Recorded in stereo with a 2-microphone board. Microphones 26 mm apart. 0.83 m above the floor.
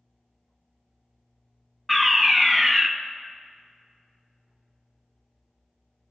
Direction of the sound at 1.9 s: 10° left (ahead or behind).